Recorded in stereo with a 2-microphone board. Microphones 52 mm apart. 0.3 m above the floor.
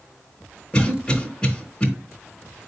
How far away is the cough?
About 1.2 m.